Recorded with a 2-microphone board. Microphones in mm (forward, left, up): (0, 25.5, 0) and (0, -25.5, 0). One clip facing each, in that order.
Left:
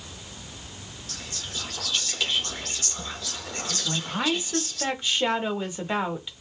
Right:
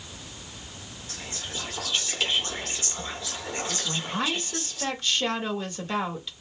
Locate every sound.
1.1 s whispering: 20° right (ahead or behind), 0.9 m
3.9 s a woman speaking: 15° left (ahead or behind), 0.9 m